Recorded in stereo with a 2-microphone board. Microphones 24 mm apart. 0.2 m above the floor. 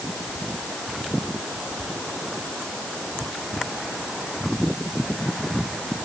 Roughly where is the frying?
I don't hear frying.